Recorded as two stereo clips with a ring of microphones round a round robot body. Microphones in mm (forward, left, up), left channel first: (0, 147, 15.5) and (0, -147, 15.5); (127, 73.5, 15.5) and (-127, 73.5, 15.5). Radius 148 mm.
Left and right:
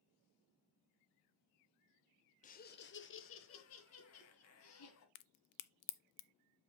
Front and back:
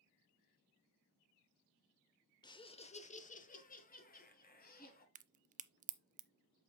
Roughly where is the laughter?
Ahead left.